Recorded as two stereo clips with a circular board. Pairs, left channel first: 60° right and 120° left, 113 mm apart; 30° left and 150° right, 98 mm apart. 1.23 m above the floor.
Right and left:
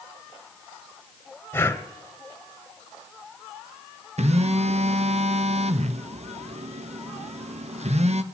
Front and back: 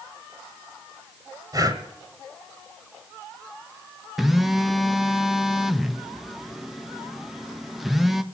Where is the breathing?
125° right, 1.3 m.